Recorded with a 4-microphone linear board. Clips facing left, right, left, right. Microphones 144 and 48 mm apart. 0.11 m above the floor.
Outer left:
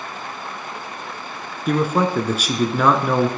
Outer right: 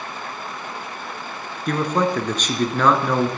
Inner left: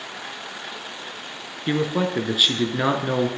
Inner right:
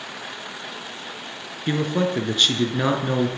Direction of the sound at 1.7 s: 10° left (ahead or behind).